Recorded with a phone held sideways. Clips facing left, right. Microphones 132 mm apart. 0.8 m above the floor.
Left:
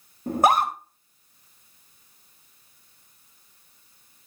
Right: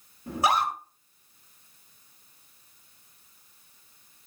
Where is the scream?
50° left (ahead or behind), 2 m.